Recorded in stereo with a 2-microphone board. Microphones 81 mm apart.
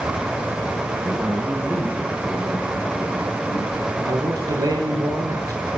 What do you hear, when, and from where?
1.0 s a man speaking: 10° right (ahead or behind), 4.5 m; by 3.9 s 45° left (ahead or behind), 5 m
4.0 s a man speaking: 45° right (ahead or behind), 7.5 m